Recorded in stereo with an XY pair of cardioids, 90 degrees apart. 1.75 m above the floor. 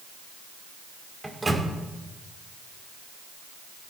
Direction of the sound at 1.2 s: 15° right.